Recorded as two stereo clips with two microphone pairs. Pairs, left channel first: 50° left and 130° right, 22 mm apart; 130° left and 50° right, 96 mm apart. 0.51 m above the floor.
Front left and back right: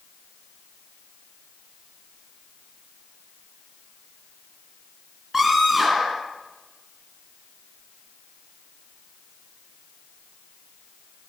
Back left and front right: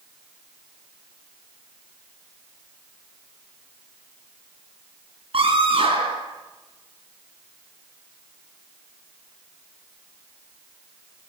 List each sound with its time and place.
5.3 s a scream: 55° right, 5.5 m